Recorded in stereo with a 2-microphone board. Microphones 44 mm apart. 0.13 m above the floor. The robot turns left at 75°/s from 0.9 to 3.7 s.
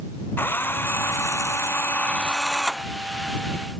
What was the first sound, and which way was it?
A drill, 125° left.